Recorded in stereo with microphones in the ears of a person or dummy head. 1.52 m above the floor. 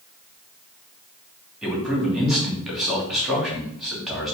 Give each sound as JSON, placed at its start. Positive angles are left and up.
{"t": 1.6, "sound": "a man speaking", "side_deg": -5, "distance_m": 2.5}